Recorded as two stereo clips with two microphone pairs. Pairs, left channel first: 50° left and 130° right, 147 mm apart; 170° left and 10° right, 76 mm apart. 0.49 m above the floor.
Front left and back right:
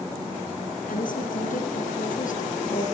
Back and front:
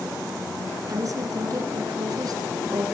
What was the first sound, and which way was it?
A woman speaking, 30° left.